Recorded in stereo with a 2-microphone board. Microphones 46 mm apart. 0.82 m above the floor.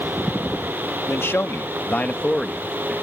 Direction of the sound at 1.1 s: 60° left (ahead or behind).